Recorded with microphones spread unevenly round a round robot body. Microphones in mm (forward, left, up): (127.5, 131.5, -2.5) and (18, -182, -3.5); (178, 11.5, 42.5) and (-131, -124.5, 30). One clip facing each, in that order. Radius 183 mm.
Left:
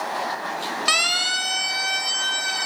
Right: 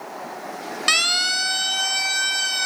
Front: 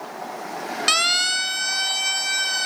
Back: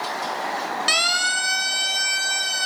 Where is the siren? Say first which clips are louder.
Left 1 dB, back 1 dB; 35° right, 2 m; by 2.7 s 80° right, 3.5 m.